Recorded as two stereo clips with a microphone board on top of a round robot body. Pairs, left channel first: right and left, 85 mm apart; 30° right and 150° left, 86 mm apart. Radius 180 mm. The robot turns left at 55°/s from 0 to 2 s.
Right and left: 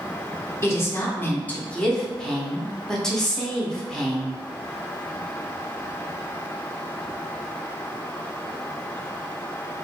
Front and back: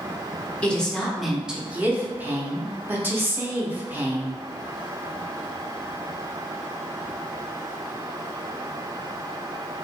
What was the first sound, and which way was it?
A woman speaking, 90° right.